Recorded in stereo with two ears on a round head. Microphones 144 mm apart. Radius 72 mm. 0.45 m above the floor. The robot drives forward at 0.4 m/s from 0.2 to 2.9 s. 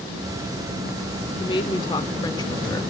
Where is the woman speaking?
30° left (ahead or behind), 0.8 m; by 2.8 s 25° left (ahead or behind), 1.0 m.